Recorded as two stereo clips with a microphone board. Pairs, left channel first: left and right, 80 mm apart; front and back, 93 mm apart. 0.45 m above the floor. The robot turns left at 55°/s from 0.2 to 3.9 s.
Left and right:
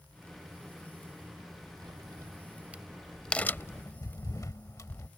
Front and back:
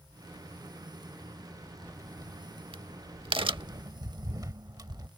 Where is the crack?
115° right; by 5.1 s 135° left.